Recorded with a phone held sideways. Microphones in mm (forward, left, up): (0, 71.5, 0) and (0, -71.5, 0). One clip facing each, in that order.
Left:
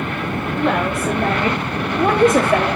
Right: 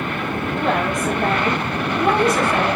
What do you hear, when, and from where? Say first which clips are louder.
0.6 s a woman speaking: left 2 dB; 5° right (ahead or behind), 1.8 m; by 2.7 s 60° left (ahead or behind), 1.3 m